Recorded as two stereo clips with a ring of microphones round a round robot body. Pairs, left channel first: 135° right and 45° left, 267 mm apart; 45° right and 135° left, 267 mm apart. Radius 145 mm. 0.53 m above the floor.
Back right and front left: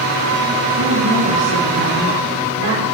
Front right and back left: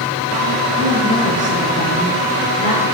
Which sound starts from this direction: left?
A woman speaking, at 0.8 s.